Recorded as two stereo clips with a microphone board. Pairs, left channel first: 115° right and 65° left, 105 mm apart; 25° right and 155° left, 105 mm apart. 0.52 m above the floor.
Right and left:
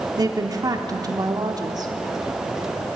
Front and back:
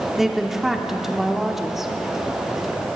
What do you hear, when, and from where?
0.2 s a woman speaking: 75° left, 0.9 m